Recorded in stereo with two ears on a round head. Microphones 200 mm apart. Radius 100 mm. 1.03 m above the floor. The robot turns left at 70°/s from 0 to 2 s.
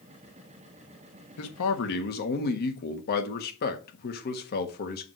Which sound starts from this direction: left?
A man speaking, at 1.4 s.